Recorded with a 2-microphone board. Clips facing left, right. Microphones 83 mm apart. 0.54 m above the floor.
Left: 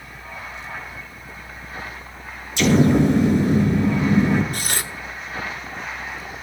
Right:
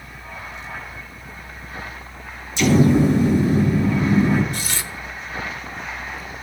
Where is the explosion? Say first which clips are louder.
Even; 65° left (ahead or behind), 1.7 m.